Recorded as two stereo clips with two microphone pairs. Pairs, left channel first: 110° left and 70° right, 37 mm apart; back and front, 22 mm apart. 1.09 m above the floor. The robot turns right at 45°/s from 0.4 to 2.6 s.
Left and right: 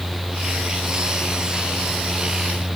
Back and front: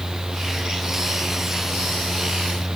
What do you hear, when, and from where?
Only background noise.